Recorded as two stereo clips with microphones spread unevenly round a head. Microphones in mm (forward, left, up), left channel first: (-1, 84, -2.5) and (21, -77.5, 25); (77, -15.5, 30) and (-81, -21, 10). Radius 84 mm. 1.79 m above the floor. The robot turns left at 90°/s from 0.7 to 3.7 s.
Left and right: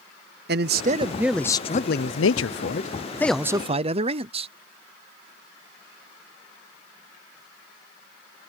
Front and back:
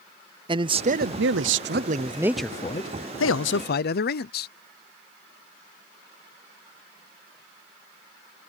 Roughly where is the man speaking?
Behind right.